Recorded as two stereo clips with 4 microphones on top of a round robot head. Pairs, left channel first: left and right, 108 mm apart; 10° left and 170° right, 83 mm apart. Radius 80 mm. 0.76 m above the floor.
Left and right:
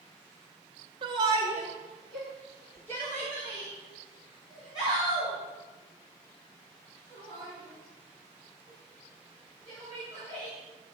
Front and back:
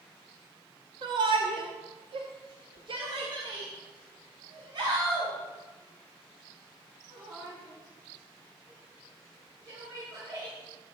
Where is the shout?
135° right, 1.2 m; by 10.5 s 140° left, 9.5 m.